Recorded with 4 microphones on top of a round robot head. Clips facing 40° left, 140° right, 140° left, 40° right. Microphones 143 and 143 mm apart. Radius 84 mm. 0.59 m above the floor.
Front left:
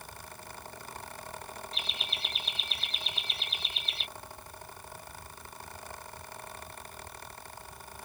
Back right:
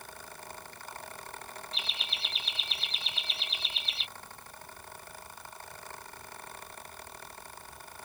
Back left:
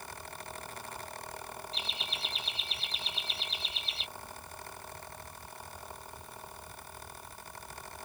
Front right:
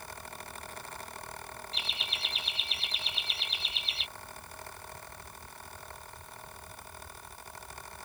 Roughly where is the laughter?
Ahead.